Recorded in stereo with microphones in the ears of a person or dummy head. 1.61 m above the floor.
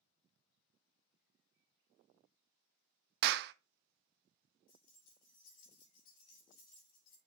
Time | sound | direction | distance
3.2 | a clap | 60° right (ahead or behind) | 0.5 m
4.7 | keys jangling | 50° left (ahead or behind) | 2.5 m